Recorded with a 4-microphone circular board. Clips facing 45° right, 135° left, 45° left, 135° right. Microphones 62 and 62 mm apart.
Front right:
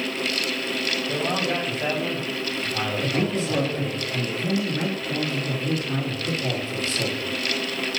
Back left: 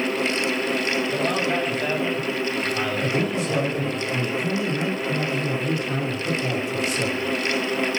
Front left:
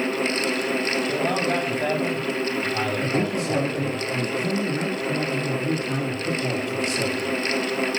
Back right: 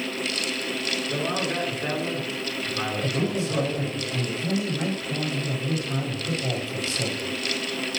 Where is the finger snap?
No finger snap in this recording.